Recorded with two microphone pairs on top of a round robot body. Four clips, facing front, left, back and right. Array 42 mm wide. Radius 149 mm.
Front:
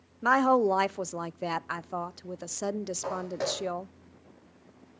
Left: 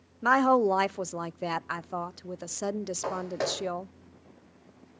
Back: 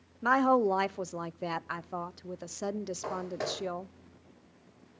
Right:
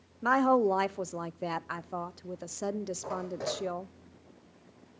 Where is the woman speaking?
60° left, 0.6 m.